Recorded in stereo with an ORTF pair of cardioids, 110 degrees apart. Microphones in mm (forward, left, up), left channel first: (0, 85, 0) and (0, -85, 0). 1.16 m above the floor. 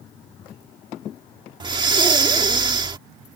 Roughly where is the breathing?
Ahead right.